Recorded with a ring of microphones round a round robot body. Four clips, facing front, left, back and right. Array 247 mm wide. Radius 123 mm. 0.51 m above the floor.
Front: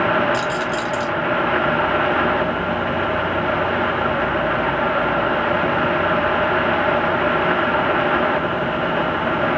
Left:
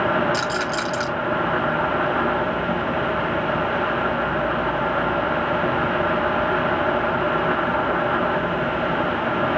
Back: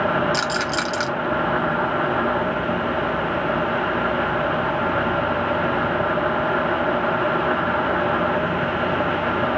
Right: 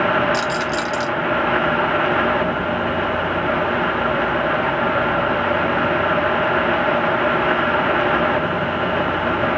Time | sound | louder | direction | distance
0.3 | a rattle | right 3 dB, front 2 dB | straight behind | 3.5 m